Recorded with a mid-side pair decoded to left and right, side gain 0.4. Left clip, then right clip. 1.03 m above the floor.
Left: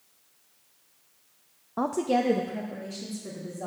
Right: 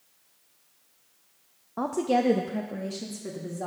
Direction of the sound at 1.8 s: 20° left.